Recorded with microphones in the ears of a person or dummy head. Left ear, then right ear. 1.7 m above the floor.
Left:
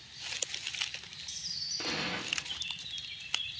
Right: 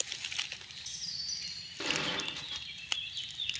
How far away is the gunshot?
About 0.7 m.